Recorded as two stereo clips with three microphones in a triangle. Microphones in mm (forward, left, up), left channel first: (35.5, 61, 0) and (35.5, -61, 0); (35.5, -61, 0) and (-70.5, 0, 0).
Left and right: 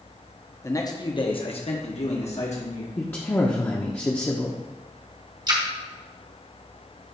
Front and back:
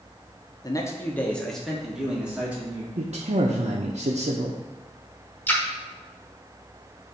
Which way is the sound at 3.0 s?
155° left.